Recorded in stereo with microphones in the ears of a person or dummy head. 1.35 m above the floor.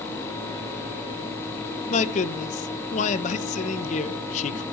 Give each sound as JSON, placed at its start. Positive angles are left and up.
{"t": 1.9, "sound": "a man speaking", "side_deg": 40, "distance_m": 1.0}